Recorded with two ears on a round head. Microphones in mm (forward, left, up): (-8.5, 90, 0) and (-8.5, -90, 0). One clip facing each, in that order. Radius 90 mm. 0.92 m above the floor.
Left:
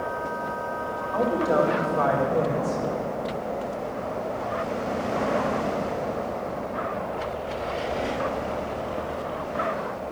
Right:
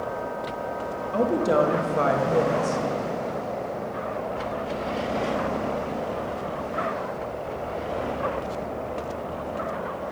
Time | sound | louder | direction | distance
1.1 | a woman speaking | right 1 dB | 35° right (ahead or behind) | 0.9 m